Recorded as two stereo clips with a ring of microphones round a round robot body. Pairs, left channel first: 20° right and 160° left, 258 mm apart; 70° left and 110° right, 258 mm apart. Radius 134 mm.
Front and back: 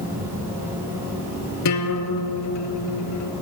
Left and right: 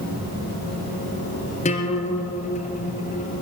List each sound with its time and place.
1.6 s a guitar: 5° left, 3 m